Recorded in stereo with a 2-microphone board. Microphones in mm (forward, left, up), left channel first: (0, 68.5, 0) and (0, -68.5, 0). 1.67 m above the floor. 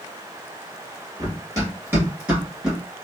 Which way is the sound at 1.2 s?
25° right (ahead or behind).